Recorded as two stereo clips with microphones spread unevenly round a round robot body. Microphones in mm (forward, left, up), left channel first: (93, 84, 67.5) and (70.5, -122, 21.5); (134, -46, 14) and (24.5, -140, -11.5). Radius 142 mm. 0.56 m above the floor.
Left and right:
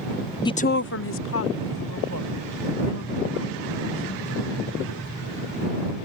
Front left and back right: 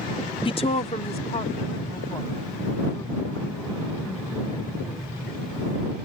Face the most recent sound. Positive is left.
turn(degrees=120)